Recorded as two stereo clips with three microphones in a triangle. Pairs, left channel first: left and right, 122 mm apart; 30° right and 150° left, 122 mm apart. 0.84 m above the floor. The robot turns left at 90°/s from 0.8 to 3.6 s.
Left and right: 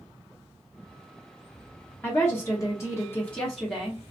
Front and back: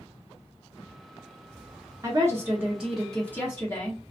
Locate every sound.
2.0 s a woman speaking: 145° left, 1.0 m; by 4.0 s 5° left, 1.0 m